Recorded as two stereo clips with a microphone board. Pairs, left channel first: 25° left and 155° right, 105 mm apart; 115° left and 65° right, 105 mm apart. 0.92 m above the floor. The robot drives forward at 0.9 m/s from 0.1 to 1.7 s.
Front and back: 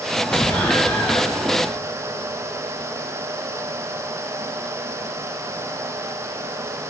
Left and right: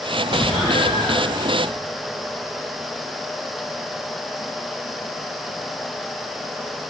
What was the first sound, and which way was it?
An explosion, 90° left.